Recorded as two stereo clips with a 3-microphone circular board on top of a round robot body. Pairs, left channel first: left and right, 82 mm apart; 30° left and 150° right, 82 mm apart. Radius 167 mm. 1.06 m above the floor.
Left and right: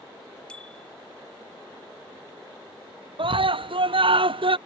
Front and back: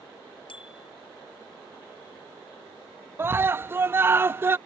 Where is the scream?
85° right.